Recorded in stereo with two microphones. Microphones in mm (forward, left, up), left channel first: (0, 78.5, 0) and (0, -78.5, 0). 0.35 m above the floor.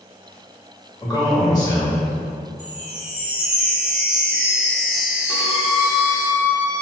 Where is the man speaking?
25° left (ahead or behind), 1.0 m.